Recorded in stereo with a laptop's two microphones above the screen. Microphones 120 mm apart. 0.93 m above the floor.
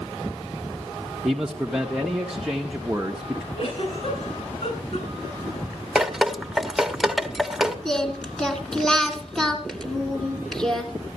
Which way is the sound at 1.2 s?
5° right (ahead or behind).